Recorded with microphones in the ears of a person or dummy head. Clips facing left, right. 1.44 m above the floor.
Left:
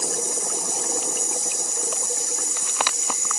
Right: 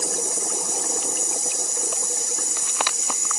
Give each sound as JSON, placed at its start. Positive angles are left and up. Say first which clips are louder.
{"t": 0.0, "sound": "an insect", "louder": "even", "side_deg": -65, "distance_m": 2.5}